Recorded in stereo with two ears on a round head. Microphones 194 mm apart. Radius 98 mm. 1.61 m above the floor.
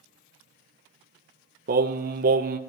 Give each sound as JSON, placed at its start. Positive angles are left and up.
{"t": 1.7, "sound": "singing", "side_deg": -40, "distance_m": 0.8}